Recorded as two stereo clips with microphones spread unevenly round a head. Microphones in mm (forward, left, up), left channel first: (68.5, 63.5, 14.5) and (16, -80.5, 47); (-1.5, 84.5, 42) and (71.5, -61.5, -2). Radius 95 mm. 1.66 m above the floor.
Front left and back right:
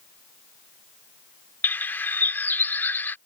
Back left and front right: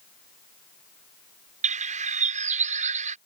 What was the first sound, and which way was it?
A bird, 15° right.